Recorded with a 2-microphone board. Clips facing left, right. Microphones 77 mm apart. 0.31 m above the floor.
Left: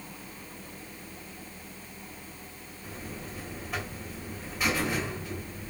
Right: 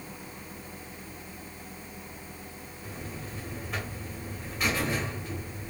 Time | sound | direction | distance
2.8 | a buzzer | centre (ahead or behind) | 1.4 m